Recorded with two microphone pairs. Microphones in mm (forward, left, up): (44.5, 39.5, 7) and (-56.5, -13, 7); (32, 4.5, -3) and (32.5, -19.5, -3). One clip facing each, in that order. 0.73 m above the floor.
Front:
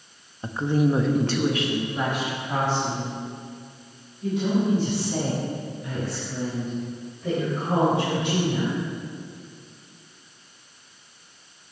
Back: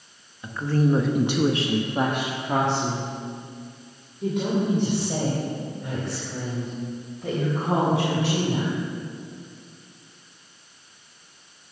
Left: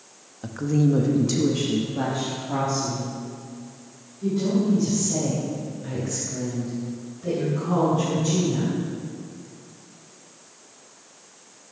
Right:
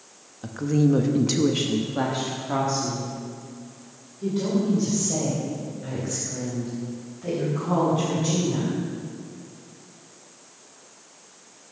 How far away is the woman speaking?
About 0.8 m.